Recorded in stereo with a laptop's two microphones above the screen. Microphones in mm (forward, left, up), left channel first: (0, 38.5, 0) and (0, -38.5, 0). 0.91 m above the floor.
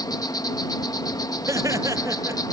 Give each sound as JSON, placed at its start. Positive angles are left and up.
{"t": 0.0, "sound": "an insect", "side_deg": 55}
{"t": 1.5, "sound": "laughter", "side_deg": -40}